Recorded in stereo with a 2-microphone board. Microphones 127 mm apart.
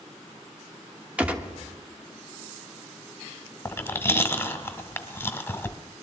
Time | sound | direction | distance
1.2 | a gunshot | 10° right (ahead or behind) | 1.0 m
3.6 | chewing | 20° left (ahead or behind) | 1.0 m